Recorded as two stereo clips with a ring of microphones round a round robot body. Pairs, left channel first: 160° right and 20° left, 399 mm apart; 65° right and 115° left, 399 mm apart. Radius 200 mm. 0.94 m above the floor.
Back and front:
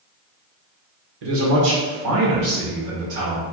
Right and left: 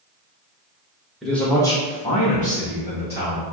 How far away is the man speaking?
About 1.2 m.